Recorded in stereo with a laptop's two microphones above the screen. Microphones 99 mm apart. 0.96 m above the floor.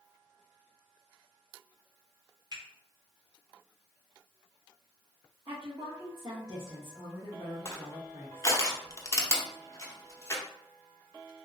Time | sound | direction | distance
2.5 | a finger snap | 50° right (ahead or behind) | 1.3 m
5.5 | a woman speaking | 45° right (ahead or behind) | 0.9 m
7.7 | crushing | 30° left (ahead or behind) | 0.6 m